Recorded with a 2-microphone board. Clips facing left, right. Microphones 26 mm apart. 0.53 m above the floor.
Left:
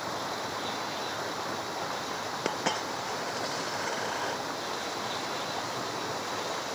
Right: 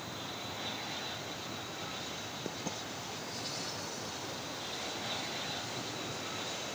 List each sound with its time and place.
0.0 s running water: 80° left
2.5 s a dropped coin: 85° left